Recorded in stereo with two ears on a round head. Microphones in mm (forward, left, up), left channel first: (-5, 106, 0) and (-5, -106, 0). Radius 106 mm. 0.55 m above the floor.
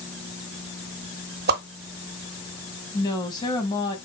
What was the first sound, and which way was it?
A whoosh, 40° right (ahead or behind).